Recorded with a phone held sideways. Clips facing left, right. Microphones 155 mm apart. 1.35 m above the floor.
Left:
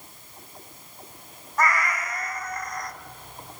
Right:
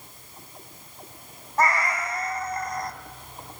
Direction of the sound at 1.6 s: 30° right (ahead or behind).